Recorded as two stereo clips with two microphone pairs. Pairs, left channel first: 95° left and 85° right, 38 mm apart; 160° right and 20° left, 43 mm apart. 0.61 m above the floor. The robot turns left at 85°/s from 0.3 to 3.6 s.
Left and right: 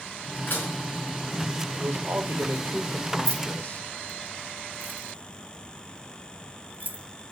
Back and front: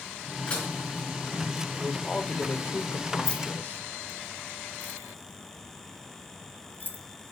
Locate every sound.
0.5 s dishes clattering: 140° left, 4.5 m; by 0.7 s 115° left, 4.5 m
1.8 s a man speaking: 55° right, 1.7 m; by 3.8 s 150° left, 1.7 m
3.2 s keys jangling: 85° right, 1.3 m; by 7.0 s 115° right, 1.3 m